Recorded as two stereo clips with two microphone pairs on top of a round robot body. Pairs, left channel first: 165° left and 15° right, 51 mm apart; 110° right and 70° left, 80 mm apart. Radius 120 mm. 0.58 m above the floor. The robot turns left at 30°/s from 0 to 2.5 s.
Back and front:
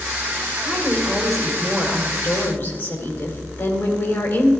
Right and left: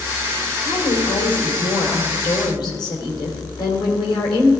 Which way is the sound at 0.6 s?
90° right.